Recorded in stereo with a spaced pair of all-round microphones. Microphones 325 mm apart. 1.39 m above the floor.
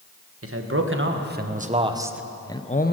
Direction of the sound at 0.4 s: 45° right (ahead or behind).